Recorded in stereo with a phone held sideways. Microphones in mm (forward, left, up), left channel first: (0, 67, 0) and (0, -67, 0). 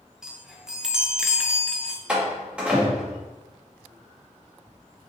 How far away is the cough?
No cough in this recording.